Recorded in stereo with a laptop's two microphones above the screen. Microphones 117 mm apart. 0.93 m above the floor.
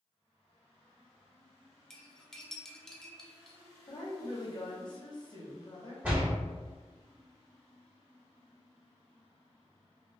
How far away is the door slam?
About 1.9 m.